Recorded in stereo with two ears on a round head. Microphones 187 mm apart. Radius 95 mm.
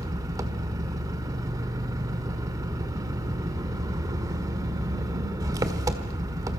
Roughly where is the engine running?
Centre.